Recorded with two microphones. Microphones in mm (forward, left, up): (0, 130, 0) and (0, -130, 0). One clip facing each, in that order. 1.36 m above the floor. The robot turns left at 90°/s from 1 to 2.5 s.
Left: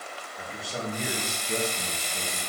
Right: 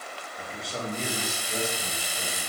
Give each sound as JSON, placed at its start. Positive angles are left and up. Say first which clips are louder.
{"t": 0.4, "sound": "a man speaking", "louder": "even", "azimuth_deg": 180, "distance_m": 2.0}